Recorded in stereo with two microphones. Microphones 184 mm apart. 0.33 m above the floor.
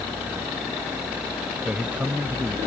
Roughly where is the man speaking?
Centre.